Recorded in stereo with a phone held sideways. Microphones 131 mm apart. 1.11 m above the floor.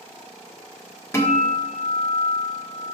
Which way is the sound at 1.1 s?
20° left (ahead or behind).